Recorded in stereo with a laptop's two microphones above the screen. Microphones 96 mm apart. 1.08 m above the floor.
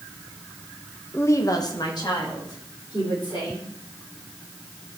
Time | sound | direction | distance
1.1 | a woman speaking | 20° left (ahead or behind) | 0.5 m